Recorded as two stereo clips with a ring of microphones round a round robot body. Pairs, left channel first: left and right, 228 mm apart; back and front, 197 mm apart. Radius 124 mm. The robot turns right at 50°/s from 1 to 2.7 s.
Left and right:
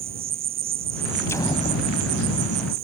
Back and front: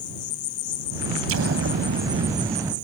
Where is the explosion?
10° left; by 2.8 s 80° left.